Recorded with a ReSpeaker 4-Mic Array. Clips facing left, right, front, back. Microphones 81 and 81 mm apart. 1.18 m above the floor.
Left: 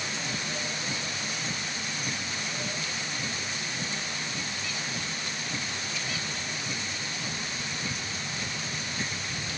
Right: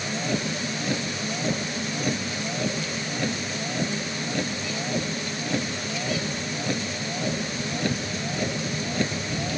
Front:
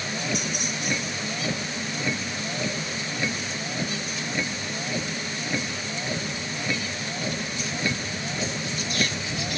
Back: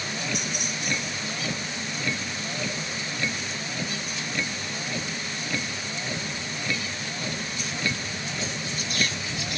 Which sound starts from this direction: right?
A vehicle, at 0.0 s.